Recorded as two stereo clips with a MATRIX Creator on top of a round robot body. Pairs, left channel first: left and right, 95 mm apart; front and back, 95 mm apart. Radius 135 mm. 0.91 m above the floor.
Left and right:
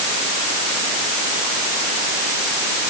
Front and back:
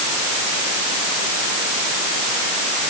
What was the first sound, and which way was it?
Only background noise.